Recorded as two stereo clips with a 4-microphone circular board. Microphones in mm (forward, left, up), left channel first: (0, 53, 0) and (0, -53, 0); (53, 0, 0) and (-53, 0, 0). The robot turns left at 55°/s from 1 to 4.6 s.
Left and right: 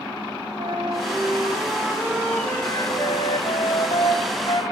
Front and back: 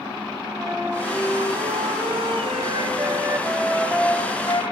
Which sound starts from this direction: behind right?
A flute, at 0.6 s.